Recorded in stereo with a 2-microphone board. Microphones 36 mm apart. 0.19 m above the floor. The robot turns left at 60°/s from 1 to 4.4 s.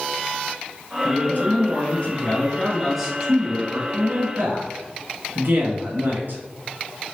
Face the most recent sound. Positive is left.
turn(degrees=-90)